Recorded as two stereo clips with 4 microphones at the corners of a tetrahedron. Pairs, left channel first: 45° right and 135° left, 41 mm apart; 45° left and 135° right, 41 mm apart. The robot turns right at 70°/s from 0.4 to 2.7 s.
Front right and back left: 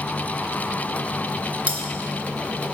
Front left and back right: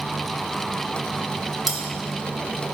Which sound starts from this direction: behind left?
Cutlery clinking, at 1.7 s.